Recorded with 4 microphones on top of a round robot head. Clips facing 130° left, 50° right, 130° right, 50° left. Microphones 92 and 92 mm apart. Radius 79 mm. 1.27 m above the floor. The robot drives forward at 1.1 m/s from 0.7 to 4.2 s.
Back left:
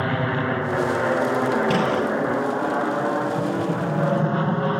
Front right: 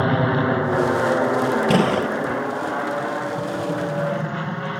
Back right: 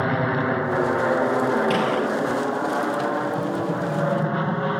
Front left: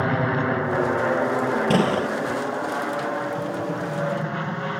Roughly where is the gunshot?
Ahead.